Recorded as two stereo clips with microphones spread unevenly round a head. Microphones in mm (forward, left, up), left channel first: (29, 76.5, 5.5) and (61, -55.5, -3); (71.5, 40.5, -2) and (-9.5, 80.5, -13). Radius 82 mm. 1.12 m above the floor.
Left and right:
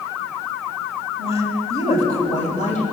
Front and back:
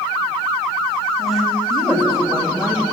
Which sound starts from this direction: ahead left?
A woman speaking, at 1.2 s.